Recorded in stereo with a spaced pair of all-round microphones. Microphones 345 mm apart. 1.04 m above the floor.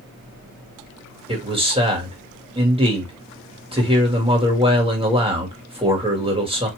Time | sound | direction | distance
1.3 | a man speaking | 15° right (ahead or behind) | 2.0 m